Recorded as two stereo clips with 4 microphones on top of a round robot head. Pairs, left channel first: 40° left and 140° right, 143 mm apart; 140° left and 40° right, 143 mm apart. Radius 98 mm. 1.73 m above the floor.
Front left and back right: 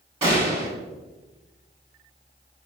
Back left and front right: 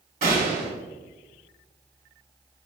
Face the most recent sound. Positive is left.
turn(degrees=-85)